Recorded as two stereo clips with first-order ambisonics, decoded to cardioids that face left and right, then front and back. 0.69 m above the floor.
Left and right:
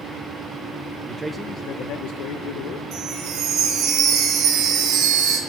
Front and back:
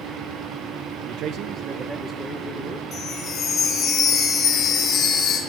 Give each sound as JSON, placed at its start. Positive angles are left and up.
{"t": 1.0, "sound": "a man speaking", "azimuth_deg": -145, "distance_m": 0.7}
{"t": 2.9, "sound": "a chime", "azimuth_deg": -60, "distance_m": 2.5}